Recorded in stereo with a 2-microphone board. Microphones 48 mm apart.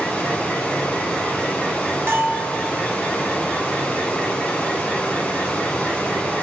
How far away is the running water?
About 1.3 m.